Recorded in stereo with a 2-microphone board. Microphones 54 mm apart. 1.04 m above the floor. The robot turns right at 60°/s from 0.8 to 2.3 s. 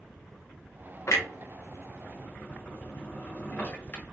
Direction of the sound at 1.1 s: 60° left (ahead or behind).